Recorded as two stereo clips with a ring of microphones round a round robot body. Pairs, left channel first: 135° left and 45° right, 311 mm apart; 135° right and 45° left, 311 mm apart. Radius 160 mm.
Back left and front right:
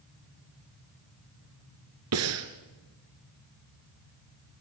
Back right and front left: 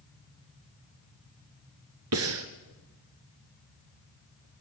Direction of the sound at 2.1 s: Straight ahead.